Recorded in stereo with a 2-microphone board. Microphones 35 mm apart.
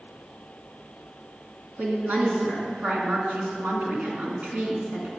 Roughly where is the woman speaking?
Right.